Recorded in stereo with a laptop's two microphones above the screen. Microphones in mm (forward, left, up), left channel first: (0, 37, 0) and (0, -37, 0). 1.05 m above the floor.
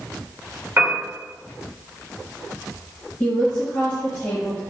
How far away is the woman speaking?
About 1.0 m.